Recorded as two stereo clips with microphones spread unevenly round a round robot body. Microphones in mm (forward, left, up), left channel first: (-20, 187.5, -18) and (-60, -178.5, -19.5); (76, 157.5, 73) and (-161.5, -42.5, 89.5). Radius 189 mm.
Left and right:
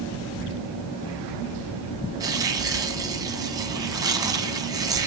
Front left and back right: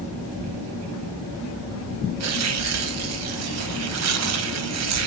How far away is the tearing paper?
About 1.8 m.